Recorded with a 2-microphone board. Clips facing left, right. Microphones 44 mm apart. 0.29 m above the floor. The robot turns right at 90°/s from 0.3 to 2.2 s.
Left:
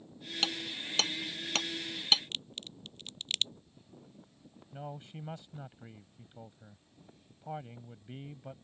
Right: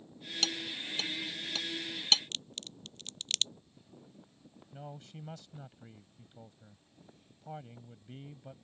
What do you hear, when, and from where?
0.4 s hammering: 15° left (ahead or behind); by 2.2 s 5° left (ahead or behind)
2.3 s a crack: 10° left (ahead or behind)
4.7 s a man speaking: 20° left (ahead or behind)